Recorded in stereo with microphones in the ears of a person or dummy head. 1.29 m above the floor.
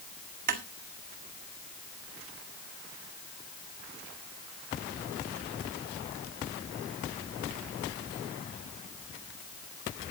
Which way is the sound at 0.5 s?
55° right (ahead or behind).